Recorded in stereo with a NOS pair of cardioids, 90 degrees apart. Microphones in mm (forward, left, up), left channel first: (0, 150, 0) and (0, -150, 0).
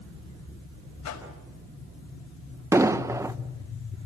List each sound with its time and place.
1.0 s a whoosh: 65° left, 5.5 m
2.7 s an explosion: 10° right, 0.9 m